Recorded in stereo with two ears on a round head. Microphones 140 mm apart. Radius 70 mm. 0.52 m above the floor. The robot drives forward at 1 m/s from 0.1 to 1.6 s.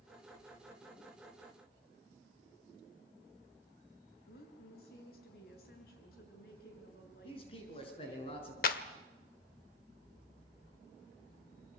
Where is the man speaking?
35° left (ahead or behind), 6.5 m.